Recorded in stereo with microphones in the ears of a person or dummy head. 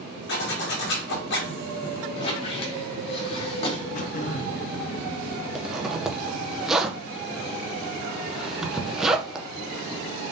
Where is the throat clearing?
45° left (ahead or behind), 0.6 m.